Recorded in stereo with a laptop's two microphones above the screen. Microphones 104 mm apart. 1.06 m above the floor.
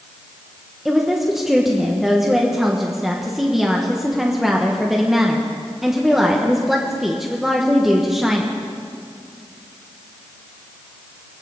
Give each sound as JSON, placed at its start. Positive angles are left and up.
{"t": 0.8, "sound": "a woman speaking", "side_deg": -5, "distance_m": 1.0}